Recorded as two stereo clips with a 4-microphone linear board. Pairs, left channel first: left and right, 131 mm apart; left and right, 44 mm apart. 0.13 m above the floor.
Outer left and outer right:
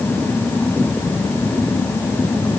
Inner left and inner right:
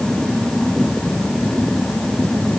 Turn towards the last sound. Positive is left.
No sound to turn to.